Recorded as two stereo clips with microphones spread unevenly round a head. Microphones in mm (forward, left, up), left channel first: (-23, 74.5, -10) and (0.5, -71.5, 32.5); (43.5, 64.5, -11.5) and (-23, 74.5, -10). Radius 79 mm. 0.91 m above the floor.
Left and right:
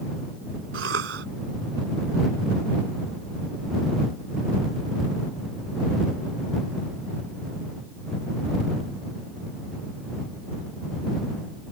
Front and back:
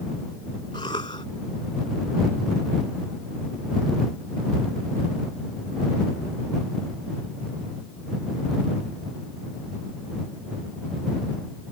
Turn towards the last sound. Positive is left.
turn(degrees=-65)